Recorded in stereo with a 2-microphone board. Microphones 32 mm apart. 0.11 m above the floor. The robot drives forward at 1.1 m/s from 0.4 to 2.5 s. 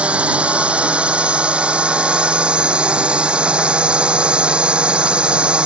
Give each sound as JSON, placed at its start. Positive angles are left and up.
{"t": 0.0, "sound": "a drone", "side_deg": -40}